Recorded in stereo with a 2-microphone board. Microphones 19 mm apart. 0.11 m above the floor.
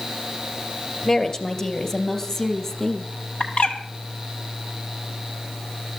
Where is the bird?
70° left (ahead or behind), 1.3 m.